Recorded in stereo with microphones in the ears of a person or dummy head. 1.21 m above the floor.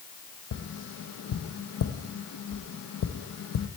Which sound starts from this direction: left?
Tapping, at 0.5 s.